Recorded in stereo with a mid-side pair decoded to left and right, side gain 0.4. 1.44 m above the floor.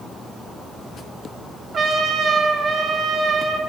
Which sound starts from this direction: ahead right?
A trumpet, at 1.7 s.